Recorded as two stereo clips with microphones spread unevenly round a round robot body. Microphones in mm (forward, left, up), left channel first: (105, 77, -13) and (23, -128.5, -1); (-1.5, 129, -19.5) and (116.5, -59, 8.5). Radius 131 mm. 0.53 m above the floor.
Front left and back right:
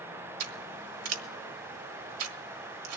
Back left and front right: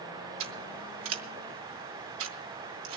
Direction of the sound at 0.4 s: 105° right.